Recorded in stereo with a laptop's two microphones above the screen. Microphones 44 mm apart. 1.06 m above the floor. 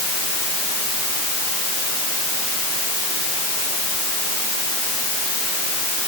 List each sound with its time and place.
Only background noise.